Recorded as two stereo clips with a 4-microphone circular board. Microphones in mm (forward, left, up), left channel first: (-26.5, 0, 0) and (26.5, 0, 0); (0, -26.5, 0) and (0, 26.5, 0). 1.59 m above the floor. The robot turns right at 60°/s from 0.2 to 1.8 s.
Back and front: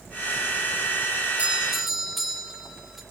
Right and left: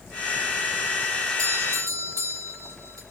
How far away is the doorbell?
About 4 m.